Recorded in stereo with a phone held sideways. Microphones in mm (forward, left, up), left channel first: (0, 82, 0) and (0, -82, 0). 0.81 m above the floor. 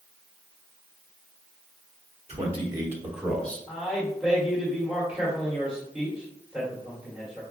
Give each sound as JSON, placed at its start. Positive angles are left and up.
{"t": 2.3, "sound": "a man speaking", "side_deg": -40, "distance_m": 1.3}
{"t": 3.7, "sound": "a man speaking", "side_deg": -5, "distance_m": 1.6}